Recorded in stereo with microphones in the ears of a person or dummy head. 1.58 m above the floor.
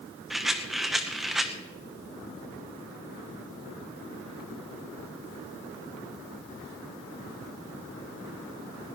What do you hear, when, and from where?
0.3 s a rattle: 5° right (ahead or behind), 0.9 m